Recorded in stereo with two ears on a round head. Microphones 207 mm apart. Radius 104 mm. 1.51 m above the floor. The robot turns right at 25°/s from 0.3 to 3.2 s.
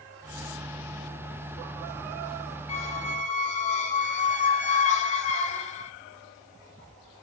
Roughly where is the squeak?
Left.